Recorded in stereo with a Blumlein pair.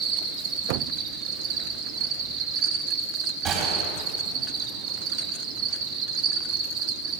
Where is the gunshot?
35° right, 5 m.